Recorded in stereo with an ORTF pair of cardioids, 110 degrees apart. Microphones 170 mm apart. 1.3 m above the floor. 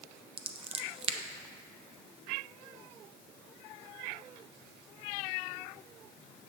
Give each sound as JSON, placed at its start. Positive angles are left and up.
{"t": 0.4, "sound": "scissors", "azimuth_deg": -35, "distance_m": 0.7}